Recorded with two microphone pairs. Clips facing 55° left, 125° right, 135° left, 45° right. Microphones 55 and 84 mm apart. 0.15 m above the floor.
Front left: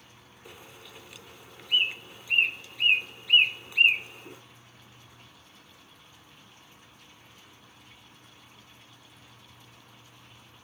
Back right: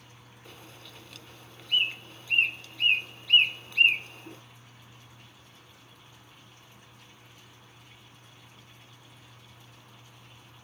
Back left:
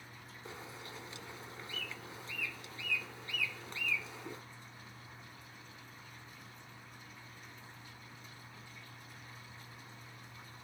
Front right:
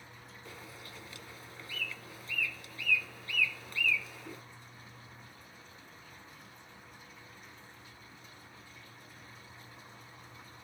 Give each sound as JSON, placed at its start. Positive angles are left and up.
{"t": 0.5, "sound": "a bird", "azimuth_deg": 125, "distance_m": 1.0}